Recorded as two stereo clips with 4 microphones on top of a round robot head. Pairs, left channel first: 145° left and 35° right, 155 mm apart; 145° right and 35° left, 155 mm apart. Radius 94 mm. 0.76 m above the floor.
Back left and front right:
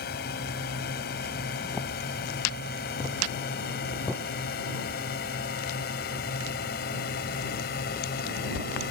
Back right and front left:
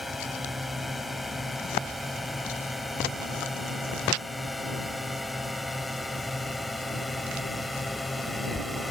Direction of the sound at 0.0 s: 125° left.